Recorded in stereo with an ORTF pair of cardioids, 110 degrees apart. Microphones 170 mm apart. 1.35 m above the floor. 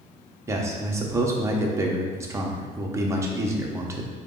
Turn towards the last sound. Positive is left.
turn(degrees=-15)